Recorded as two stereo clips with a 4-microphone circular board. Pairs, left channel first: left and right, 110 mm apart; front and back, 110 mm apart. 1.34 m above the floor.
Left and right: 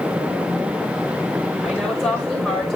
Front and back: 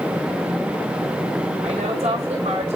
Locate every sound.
1.6 s a woman speaking: 175° left, 5.5 m